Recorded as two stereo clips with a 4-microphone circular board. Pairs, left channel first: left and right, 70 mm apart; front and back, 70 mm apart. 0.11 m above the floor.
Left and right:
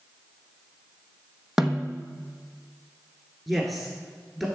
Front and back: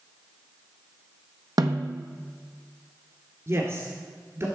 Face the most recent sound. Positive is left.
turn(degrees=180)